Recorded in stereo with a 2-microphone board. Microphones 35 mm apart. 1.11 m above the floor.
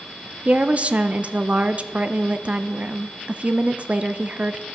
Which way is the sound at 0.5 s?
35° right (ahead or behind).